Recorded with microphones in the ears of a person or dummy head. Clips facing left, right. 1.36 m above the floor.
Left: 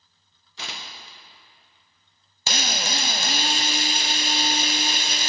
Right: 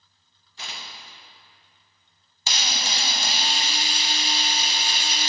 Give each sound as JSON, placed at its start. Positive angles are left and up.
{"t": 0.6, "sound": "tearing paper", "side_deg": 50, "distance_m": 0.8}
{"t": 2.5, "sound": "a drill", "side_deg": 40, "distance_m": 0.6}